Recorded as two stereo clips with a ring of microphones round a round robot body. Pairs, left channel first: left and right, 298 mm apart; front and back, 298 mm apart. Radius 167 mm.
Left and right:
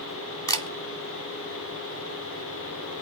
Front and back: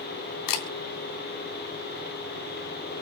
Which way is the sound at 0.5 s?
10° left.